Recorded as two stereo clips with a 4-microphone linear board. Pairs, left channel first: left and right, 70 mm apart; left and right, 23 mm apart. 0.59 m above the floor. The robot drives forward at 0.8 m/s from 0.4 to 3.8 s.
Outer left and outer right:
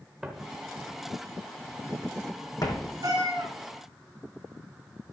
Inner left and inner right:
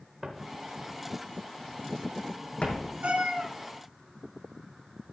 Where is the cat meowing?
70° right (ahead or behind), 3.5 m; by 3.5 s 75° right (ahead or behind), 3.5 m.